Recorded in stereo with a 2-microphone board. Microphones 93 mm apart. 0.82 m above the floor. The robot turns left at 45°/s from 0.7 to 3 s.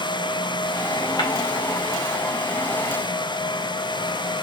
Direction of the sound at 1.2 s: 55° left (ahead or behind).